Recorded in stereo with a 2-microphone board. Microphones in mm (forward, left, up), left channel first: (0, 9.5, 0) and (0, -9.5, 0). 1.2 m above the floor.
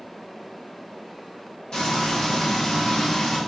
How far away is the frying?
About 1.6 m.